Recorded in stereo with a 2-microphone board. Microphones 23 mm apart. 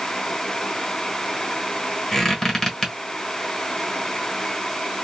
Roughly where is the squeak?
Centre.